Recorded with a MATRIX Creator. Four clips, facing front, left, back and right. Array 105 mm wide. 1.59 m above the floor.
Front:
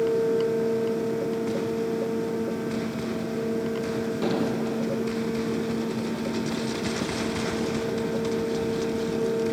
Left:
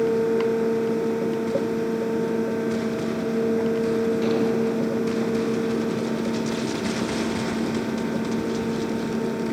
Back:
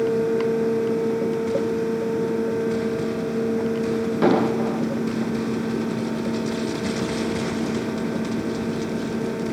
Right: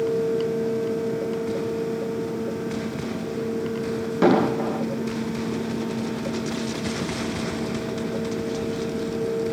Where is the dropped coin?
I don't hear a dropped coin.